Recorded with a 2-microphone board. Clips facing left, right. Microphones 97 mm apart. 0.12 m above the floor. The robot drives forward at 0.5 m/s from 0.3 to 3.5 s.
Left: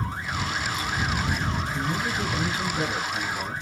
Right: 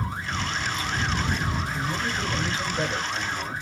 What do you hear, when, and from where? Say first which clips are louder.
1.7 s a man speaking: left 1 dB; 10° left (ahead or behind), 2.5 m